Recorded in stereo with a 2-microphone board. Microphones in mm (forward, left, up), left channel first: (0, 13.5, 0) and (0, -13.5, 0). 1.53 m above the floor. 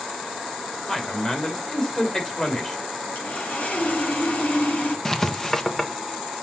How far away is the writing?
About 1.1 m.